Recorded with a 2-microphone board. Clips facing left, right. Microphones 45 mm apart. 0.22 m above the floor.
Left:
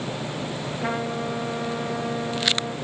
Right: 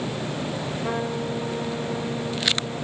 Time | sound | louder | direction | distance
0.8 | a trumpet | left 1 dB | 75° left (ahead or behind) | 3 m